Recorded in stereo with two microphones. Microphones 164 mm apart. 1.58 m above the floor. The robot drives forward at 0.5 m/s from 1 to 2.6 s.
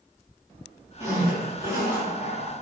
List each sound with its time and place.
1.0 s a zipper: 20° right (ahead or behind), 4 m; by 2.5 s 15° right (ahead or behind), 4.5 m